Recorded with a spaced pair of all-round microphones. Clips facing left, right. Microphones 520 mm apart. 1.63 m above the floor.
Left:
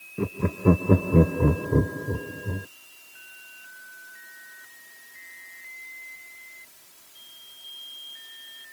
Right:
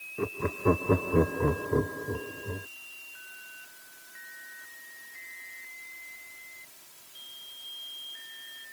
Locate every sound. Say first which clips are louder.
0.2 s laughter: left 3 dB; 50° left (ahead or behind)